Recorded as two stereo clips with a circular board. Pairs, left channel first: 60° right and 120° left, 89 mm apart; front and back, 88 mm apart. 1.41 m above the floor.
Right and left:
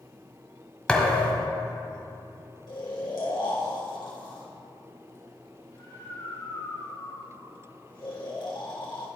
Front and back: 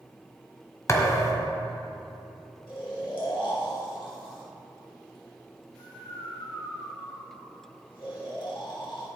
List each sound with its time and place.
0.9 s a thud: 10° left, 1.4 m
2.7 s snoring: 30° right, 1.9 m